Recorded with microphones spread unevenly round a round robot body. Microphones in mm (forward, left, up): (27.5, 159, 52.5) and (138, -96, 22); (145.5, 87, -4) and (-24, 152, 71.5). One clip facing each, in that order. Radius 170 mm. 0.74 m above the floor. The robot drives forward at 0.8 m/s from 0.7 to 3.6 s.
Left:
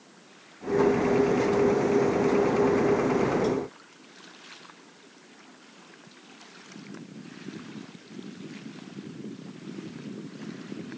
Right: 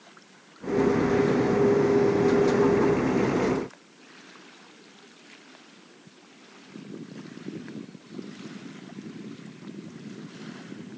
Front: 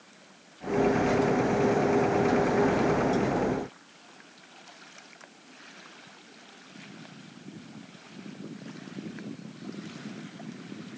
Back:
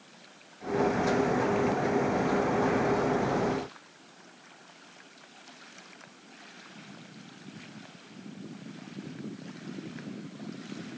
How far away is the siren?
I don't hear a siren.